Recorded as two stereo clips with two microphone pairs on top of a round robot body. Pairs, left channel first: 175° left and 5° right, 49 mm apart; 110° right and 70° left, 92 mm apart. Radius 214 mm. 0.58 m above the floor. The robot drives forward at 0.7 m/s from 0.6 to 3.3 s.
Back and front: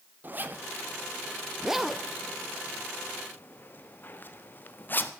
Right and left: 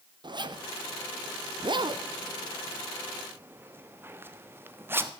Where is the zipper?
40° left, 1.5 m; by 5.1 s 140° left, 1.5 m.